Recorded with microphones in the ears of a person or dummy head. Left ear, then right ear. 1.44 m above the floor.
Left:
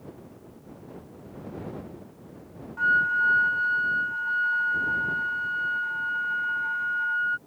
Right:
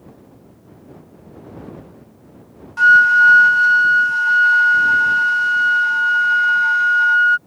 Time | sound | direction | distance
2.8 | a flute | 75° right (ahead or behind) | ?